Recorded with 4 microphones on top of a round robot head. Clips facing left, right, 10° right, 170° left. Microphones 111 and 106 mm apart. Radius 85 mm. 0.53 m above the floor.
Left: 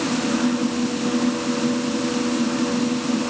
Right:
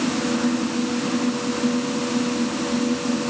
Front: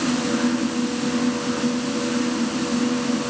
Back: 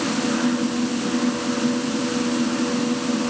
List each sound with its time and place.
Only background noise.